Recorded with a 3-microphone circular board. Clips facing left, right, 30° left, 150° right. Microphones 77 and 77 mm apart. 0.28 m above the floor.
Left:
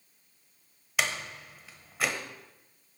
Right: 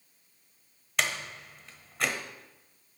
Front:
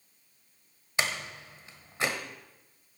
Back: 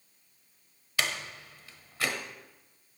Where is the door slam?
5° left, 1.1 m.